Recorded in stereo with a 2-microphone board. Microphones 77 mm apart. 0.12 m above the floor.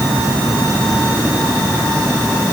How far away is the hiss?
I don't hear a hiss.